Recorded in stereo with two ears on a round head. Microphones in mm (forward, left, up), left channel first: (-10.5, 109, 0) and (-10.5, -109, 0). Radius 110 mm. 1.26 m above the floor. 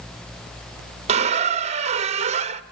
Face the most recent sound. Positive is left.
turn(degrees=-25)  # may be behind; listen again after turning